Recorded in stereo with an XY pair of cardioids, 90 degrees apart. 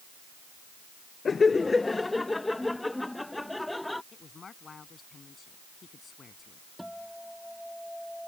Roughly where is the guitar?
Ahead.